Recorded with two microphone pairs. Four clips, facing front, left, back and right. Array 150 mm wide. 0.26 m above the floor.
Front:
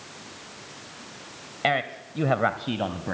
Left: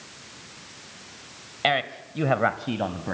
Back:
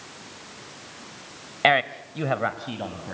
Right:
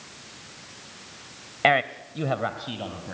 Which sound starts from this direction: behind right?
A man speaking, at 1.6 s.